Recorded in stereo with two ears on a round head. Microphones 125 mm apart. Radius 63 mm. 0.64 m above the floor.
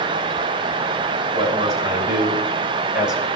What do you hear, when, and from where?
1.3 s a man speaking: 25° right (ahead or behind), 4.5 m; by 3.2 s centre (ahead or behind), 2.5 m